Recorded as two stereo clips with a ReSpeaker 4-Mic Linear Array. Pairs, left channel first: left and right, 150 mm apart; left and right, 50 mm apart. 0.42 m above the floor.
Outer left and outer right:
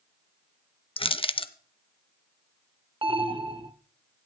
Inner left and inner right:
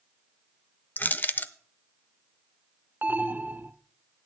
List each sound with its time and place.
1.0 s crushing: 35° left (ahead or behind), 0.5 m
3.0 s an alarm: 35° right (ahead or behind), 0.7 m